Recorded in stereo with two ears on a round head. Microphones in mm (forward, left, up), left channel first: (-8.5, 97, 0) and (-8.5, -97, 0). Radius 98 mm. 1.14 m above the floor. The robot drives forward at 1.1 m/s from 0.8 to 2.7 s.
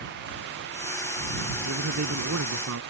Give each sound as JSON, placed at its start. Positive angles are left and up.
{"t": 1.6, "sound": "a man speaking", "side_deg": -70}